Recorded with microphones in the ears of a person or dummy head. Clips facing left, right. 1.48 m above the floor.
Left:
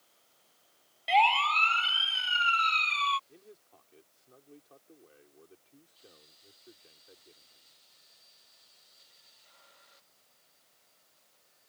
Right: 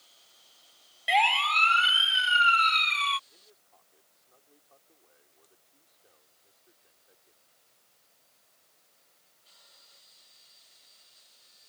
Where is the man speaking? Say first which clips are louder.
Left 8 dB; 45° left (ahead or behind).